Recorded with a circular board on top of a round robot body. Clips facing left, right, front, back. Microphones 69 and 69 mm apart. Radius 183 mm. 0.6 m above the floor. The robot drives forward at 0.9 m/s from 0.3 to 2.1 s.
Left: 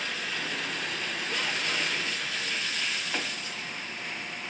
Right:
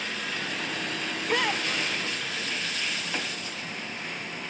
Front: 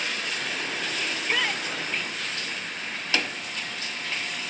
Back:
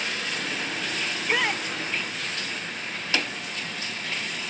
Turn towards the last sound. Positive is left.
turn(degrees=-115)